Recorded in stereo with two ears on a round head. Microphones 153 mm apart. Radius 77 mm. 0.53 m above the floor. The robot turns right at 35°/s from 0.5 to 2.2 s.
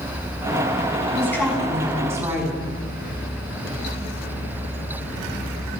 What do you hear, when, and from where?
1.1 s a woman speaking: 160° left, 5 m; by 2.7 s 160° right, 5 m